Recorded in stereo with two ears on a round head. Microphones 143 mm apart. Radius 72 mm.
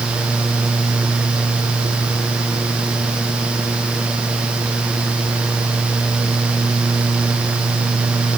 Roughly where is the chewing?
No chewing in this recording.